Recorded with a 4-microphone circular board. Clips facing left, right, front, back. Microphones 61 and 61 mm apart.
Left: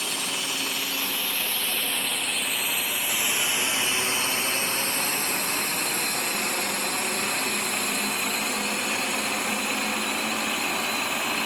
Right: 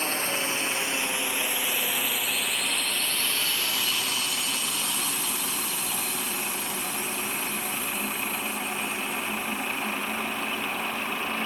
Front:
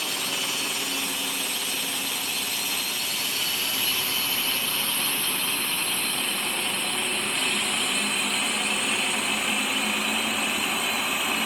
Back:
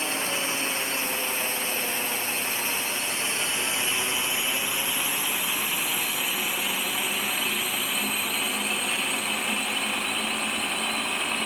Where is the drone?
130° right; by 11.5 s 85° left.